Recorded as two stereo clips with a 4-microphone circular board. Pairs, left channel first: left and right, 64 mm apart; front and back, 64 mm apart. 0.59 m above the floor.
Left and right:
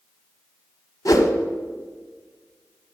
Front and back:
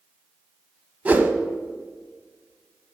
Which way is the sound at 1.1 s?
115° left.